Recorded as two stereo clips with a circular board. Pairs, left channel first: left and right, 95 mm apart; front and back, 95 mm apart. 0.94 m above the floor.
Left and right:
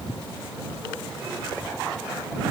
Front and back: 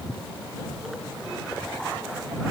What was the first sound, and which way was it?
Only background noise.